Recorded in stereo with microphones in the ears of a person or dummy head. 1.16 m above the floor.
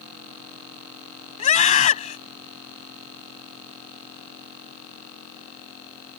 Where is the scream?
40° left (ahead or behind).